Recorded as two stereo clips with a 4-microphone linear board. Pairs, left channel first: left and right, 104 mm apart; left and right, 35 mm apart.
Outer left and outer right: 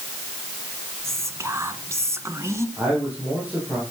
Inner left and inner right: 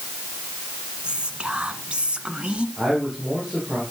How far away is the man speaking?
About 8 m.